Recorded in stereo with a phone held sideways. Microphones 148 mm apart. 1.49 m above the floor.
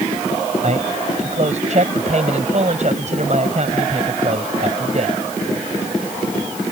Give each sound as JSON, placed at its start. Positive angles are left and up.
{"t": 0.6, "sound": "a man speaking", "side_deg": -50}